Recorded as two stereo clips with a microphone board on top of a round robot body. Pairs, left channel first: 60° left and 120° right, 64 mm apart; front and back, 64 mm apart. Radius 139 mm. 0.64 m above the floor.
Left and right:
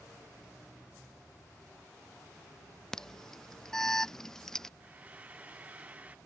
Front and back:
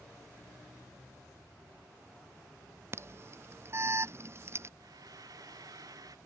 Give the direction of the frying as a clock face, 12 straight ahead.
6 o'clock.